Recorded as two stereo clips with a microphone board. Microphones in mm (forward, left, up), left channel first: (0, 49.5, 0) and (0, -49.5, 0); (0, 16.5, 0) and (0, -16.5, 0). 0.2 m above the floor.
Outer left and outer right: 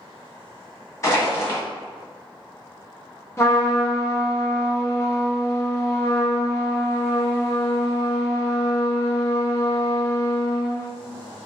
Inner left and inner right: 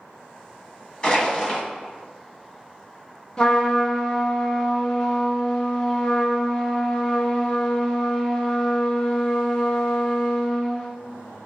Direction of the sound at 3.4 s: 30° left (ahead or behind).